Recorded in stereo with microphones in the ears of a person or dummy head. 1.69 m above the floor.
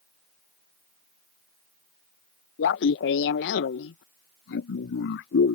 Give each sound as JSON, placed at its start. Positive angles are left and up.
{"t": 2.6, "sound": "laughter", "side_deg": 55}